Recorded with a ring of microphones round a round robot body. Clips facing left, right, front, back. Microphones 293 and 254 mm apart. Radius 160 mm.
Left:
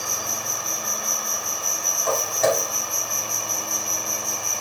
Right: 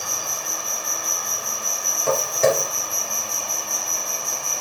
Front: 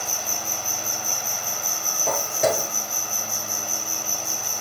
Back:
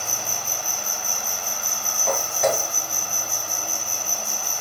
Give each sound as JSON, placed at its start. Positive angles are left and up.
{"t": 0.0, "sound": "an insect", "azimuth_deg": -170, "distance_m": 4.0}
{"t": 2.1, "sound": "footsteps", "azimuth_deg": -45, "distance_m": 1.1}